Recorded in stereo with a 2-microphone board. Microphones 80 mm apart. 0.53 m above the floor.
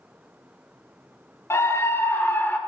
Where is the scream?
35° left (ahead or behind), 0.9 m; by 2.6 s 20° left (ahead or behind), 1.3 m.